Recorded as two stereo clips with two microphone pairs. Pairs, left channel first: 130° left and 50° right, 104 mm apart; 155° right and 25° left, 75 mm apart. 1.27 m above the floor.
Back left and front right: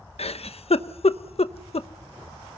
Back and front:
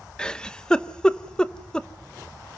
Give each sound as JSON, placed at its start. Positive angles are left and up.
{"t": 0.2, "sound": "a giggle", "azimuth_deg": 125, "distance_m": 0.8}